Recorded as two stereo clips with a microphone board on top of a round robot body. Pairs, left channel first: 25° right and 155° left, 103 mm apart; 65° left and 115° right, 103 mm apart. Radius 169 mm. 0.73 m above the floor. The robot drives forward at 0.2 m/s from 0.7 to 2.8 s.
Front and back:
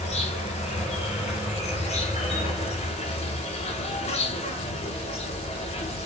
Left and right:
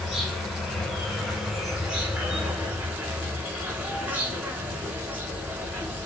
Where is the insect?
25° right, 1.1 m; by 6.1 s 35° right, 0.8 m.